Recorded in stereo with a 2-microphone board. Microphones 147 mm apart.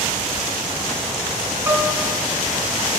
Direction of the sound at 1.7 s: 20° right (ahead or behind).